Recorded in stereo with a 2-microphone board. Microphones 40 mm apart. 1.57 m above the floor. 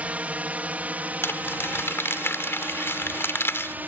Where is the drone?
35° right (ahead or behind); by 3.9 s 45° right (ahead or behind).